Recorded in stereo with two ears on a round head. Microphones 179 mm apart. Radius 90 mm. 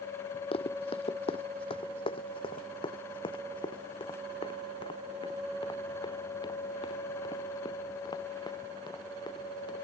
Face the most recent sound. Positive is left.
turn(degrees=20)  # may be behind; listen again after turning